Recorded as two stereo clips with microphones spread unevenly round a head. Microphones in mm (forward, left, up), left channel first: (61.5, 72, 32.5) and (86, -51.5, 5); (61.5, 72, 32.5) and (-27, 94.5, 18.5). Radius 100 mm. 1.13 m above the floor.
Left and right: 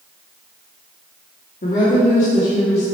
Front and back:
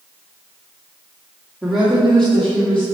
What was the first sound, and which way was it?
A woman speaking, 80° left.